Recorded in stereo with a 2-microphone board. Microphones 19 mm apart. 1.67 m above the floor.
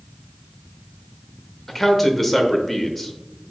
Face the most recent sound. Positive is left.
turn(degrees=5)  # may be behind; listen again after turning